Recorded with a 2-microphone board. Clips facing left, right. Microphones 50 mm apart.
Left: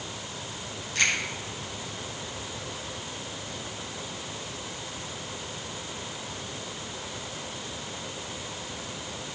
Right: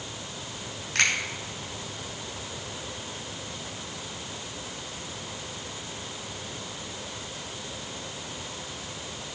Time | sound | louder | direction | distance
0.9 | a finger snap | right 1 dB | 70° right (ahead or behind) | 4 m